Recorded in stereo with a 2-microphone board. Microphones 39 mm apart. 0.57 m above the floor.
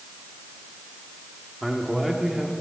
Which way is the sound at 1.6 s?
5° right (ahead or behind).